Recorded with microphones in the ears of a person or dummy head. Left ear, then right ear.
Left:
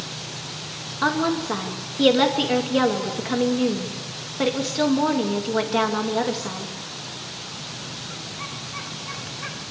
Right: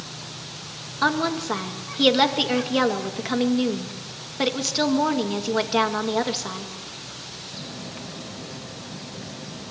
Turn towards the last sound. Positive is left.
turn(degrees=-20)  # may be behind; listen again after turning